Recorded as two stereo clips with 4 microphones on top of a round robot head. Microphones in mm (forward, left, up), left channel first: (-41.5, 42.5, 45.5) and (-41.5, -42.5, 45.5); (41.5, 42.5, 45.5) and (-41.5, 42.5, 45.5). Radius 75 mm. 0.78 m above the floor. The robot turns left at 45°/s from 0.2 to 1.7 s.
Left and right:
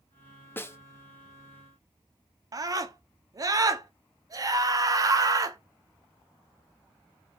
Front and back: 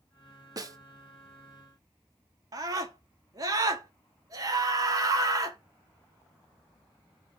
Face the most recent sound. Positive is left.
turn(degrees=-135)